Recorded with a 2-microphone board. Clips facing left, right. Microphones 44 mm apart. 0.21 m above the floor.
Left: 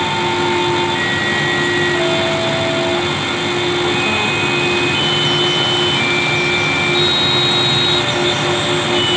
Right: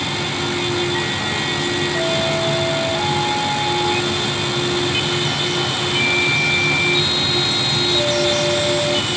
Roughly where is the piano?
No piano in this recording.